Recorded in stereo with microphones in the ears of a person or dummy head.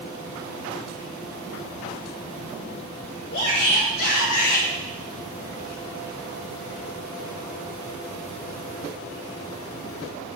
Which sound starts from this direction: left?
A shout, at 3.3 s.